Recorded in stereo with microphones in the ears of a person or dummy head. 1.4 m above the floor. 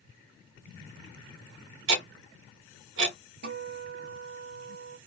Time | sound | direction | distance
1.9 | ticking | 75° right (ahead or behind) | 1.2 m
3.4 | a guitar | 50° right (ahead or behind) | 0.7 m